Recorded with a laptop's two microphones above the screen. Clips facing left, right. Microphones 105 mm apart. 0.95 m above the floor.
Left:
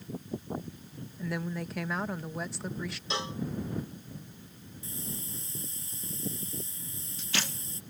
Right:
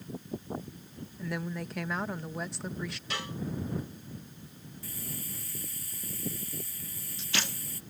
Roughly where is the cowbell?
Left.